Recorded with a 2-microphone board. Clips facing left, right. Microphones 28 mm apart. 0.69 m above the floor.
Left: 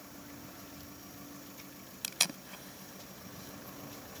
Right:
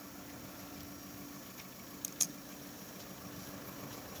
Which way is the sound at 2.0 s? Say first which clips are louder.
Left 8 dB; 75° left (ahead or behind).